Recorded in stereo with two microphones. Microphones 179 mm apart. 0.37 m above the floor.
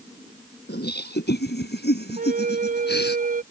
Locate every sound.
0.7 s laughter: 70° left (ahead or behind); by 3.2 s 75° left (ahead or behind)
2.2 s a flute: 55° right (ahead or behind)